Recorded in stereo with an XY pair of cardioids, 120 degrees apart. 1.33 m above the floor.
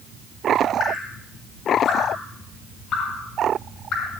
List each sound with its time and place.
0.8 s dripping: 60° left, 5 m